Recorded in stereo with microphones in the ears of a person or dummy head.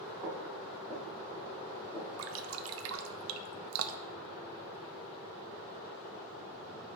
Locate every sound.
0.2 s footsteps: 15° right (ahead or behind), 2 m; by 2.1 s 15° left (ahead or behind), 4.5 m
2.2 s dripping: 70° right (ahead or behind), 0.5 m